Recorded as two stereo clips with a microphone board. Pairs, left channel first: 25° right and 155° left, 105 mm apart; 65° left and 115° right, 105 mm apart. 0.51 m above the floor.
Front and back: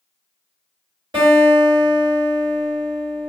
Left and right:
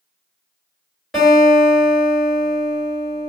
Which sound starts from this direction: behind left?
A guitar, at 1.1 s.